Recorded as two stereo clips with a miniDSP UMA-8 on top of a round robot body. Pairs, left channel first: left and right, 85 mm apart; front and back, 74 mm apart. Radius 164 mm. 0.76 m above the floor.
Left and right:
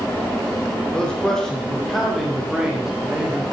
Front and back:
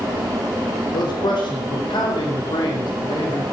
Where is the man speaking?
10° left, 4 m; by 3.4 s 15° right, 3 m.